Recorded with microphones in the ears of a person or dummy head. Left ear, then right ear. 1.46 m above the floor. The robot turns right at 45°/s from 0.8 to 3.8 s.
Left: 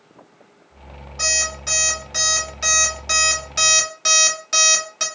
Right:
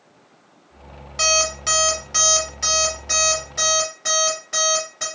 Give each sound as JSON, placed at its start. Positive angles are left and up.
{"t": 1.2, "sound": "an alarm clock", "side_deg": -45, "distance_m": 1.6}